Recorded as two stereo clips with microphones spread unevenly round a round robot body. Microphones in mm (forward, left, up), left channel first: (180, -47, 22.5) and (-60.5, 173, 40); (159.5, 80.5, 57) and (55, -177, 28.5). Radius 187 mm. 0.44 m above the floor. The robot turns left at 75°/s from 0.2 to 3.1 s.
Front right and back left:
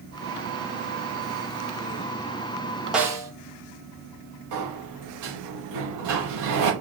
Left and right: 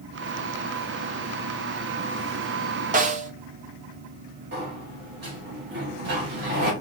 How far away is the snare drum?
About 0.6 m.